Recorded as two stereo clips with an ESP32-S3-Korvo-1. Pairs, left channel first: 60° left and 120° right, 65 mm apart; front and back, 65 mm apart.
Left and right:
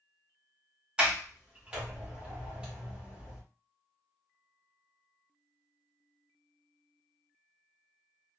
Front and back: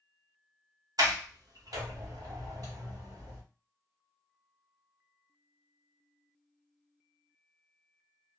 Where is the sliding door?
165° left, 1.0 m.